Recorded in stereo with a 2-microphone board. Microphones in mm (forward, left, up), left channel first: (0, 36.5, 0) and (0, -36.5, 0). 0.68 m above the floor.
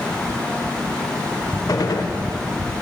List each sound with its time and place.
1.7 s a gunshot: 60° left (ahead or behind), 0.7 m